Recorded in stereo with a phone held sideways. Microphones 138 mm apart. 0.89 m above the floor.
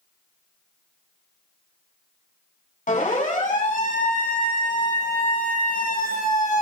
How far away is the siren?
About 7.5 m.